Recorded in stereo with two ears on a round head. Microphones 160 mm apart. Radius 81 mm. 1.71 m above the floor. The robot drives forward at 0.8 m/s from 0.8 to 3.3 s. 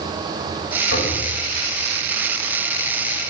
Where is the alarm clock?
No alarm clock in this recording.